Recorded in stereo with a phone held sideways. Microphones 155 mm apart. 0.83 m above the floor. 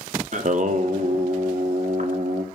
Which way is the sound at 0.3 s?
55° right (ahead or behind).